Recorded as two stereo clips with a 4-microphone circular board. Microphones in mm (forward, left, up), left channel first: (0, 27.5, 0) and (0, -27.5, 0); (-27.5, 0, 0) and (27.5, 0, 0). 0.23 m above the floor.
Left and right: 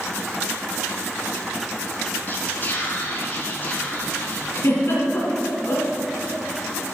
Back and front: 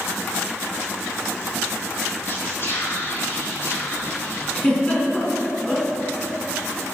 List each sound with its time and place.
2.3 s whispering: 140° left, 3.5 m
4.5 s a giggle: 115° left, 3 m